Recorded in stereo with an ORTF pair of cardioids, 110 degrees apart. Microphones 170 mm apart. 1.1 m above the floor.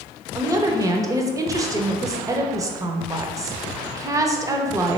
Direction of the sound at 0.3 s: 20° right.